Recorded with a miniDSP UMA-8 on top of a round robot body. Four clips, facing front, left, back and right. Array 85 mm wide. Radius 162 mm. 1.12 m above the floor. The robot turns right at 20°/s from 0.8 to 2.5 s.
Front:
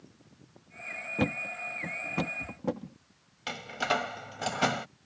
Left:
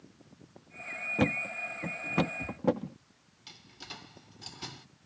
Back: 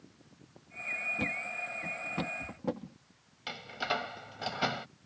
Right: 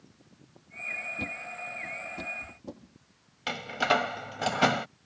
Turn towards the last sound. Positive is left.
turn(degrees=-75)